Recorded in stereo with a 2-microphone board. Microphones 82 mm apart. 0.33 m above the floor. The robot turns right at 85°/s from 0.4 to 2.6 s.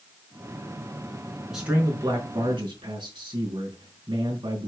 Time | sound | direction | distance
1.5 | a man speaking | straight behind | 5 m